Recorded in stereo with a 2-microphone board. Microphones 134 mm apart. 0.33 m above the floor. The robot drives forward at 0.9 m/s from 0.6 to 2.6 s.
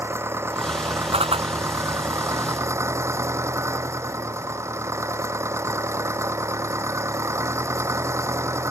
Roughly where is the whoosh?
Right.